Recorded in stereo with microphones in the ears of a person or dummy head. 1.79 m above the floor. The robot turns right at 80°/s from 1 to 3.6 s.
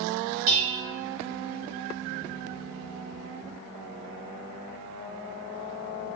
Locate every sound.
0.5 s dishes clattering: 40° right (ahead or behind), 1.5 m